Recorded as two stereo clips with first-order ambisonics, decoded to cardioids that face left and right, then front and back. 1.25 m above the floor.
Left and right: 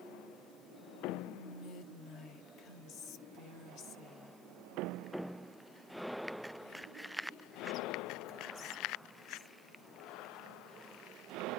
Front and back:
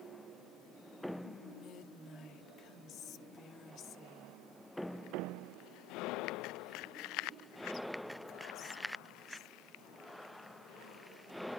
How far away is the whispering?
About 1.0 m.